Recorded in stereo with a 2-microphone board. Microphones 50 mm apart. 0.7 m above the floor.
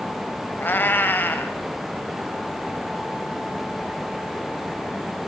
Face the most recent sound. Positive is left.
turn(degrees=40)  # may be behind; listen again after turning